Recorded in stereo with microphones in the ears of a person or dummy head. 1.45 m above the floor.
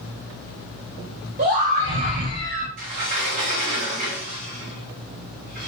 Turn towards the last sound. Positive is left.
turn(degrees=-40)  # may be behind; listen again after turning